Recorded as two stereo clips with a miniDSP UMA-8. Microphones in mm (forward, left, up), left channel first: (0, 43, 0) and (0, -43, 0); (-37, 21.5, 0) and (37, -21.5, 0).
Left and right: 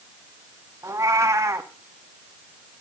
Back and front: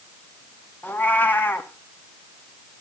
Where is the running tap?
No running tap in this recording.